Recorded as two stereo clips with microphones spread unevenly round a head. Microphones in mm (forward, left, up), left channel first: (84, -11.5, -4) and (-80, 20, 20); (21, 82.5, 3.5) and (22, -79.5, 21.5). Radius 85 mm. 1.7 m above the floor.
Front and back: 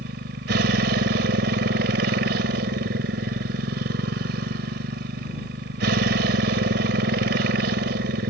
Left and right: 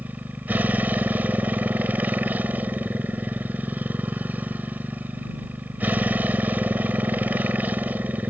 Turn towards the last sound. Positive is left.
turn(degrees=-170)